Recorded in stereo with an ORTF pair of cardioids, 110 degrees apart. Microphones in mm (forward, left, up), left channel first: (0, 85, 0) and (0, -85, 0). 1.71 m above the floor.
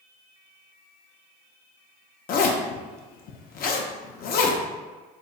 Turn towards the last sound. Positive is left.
turn(degrees=60)